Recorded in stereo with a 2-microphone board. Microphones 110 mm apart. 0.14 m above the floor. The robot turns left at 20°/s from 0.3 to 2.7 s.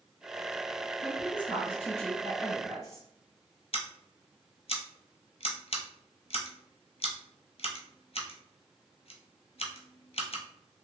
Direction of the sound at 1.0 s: 10° left (ahead or behind).